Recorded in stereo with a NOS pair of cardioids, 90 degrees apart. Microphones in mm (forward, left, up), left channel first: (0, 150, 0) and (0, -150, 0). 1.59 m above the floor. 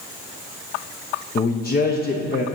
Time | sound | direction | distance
1.4 | a man speaking | 30° left | 0.8 m